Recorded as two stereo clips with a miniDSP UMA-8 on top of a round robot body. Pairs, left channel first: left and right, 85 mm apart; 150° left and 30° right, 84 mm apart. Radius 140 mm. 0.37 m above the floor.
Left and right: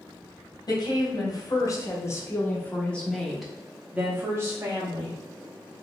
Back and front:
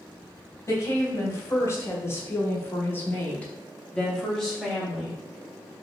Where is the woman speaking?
100° left, 1.7 m; by 5.2 s 115° right, 1.5 m.